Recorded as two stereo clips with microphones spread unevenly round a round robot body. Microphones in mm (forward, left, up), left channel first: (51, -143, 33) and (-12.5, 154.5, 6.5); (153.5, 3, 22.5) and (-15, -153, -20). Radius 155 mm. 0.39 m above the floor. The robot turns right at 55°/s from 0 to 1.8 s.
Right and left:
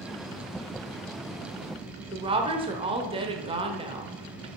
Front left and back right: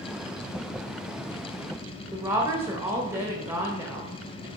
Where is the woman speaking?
160° left, 1.3 m.